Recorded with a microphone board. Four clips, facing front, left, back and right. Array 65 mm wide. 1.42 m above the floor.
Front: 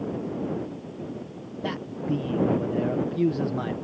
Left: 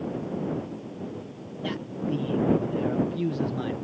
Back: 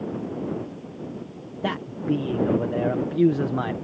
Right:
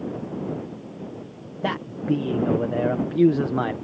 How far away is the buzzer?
No buzzer in this recording.